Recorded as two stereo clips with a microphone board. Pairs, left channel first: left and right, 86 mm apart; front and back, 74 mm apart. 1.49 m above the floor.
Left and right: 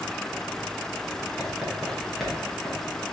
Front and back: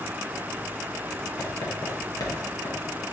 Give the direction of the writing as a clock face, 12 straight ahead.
12 o'clock.